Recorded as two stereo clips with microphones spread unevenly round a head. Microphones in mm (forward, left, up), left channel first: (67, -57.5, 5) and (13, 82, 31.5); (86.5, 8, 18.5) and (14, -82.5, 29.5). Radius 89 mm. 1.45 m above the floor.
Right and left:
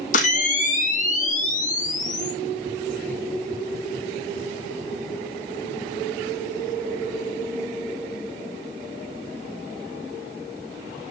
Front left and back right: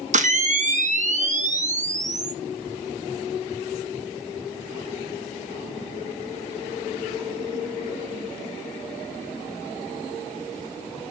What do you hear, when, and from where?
0.1 s a camera shutter: 115° right, 1.0 m